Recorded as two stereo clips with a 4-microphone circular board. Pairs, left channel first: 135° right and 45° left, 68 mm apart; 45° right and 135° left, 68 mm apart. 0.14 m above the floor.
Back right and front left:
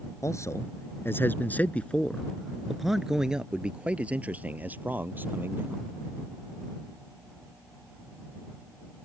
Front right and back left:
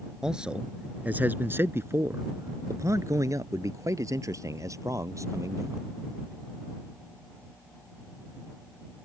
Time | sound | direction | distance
0.2 | a man speaking | 150° right | ?